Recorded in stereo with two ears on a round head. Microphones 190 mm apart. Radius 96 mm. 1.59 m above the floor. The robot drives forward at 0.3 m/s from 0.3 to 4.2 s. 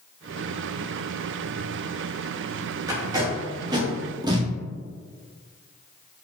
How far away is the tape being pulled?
About 0.6 m.